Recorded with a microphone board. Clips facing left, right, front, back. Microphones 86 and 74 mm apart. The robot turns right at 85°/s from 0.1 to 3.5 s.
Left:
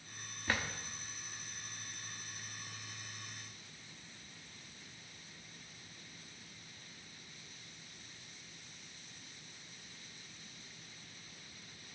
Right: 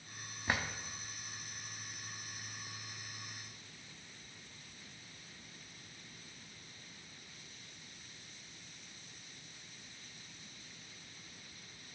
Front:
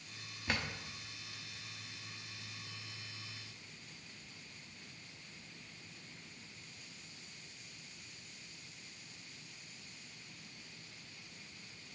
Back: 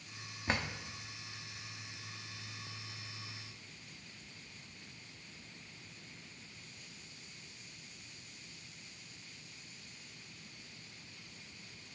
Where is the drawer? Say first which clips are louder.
Right 1 dB, back 3 dB; 150° right, 0.6 m; by 0.7 s 130° right, 0.6 m.